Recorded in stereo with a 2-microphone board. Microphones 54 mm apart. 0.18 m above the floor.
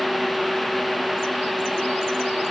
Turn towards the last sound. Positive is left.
No sound to turn to.